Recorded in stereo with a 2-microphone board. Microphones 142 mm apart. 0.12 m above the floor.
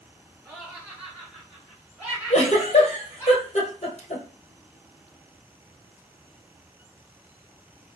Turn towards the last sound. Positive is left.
turn(degrees=50)  # may be behind; listen again after turning